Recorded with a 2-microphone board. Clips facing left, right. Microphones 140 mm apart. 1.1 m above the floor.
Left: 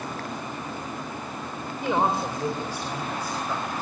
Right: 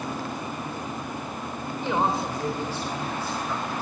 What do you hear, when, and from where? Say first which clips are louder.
1.8 s a woman speaking: left 1 dB; 15° left (ahead or behind), 3.5 m